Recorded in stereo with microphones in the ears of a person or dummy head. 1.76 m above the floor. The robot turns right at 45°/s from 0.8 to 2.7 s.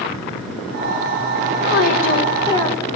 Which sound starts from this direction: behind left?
A woman speaking, at 1.6 s.